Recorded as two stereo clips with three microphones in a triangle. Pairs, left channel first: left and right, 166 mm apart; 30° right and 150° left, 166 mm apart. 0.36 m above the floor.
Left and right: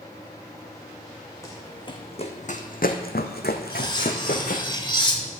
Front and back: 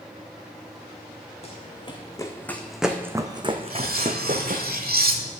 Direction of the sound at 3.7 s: 150° left.